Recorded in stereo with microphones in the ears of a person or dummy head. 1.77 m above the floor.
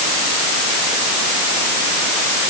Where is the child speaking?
No child speaking in this recording.